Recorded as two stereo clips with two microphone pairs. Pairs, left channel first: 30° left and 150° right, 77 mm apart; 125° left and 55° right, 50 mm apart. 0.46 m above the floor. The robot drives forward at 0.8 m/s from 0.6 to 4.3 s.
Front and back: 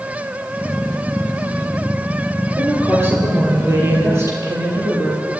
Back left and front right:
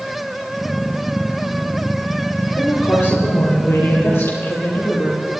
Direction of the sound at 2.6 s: 155° left.